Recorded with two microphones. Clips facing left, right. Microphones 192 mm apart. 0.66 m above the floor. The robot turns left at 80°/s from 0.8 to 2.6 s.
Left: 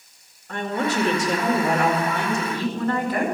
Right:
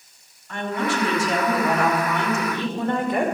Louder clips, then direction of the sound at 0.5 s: Left 1 dB; 120° left.